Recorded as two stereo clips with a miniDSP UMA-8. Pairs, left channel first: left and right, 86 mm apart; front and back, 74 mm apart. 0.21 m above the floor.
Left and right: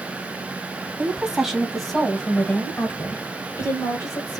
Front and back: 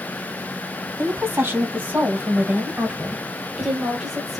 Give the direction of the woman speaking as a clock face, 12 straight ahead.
5 o'clock.